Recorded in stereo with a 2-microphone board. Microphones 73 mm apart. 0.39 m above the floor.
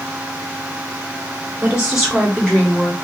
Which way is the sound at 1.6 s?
15° right (ahead or behind).